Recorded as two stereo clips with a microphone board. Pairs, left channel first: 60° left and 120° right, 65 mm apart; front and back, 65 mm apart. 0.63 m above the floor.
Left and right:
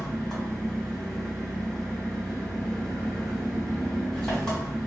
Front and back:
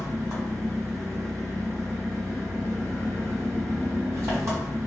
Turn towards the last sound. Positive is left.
turn(degrees=145)